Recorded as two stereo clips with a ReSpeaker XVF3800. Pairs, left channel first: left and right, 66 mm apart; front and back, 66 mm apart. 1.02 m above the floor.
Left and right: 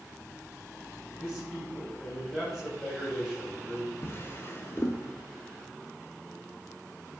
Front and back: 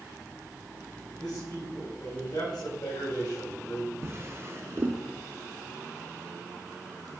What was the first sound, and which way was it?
A man speaking, 10° right.